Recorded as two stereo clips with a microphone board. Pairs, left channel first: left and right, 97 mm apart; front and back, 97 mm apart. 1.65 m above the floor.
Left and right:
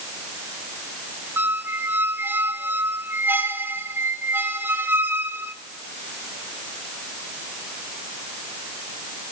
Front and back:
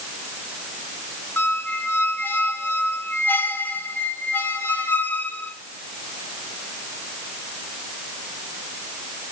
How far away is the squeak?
About 0.9 m.